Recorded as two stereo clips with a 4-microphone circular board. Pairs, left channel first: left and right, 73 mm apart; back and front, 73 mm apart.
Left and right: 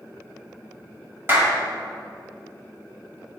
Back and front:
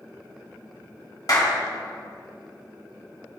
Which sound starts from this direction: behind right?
A clap, at 1.3 s.